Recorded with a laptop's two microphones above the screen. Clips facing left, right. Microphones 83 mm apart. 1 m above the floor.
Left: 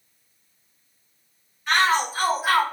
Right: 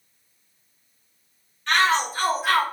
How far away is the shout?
About 1.7 m.